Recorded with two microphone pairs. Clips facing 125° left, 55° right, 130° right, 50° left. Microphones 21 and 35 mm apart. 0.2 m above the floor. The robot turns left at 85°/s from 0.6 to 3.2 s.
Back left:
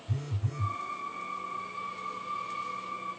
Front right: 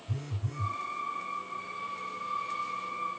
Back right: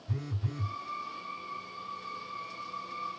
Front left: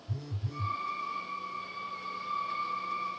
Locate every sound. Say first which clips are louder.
0.1 s a phone buzzing: back left 2 dB, back right 3 dB; 155° right, 0.6 m; by 0.8 s 170° right, 0.6 m